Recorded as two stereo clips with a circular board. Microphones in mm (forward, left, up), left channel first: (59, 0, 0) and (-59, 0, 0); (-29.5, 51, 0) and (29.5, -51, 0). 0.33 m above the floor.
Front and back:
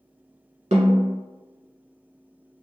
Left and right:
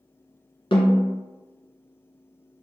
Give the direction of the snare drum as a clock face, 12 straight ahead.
7 o'clock.